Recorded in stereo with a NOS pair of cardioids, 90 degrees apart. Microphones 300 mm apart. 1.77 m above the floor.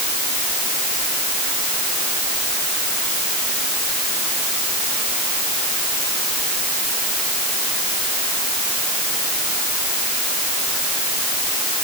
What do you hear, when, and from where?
Only background noise.